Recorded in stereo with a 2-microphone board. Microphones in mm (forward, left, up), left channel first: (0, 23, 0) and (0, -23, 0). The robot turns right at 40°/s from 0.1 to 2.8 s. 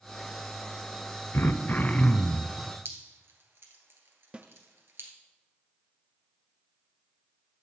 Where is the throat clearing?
115° left, 0.5 m; by 2.6 s 160° left, 0.5 m.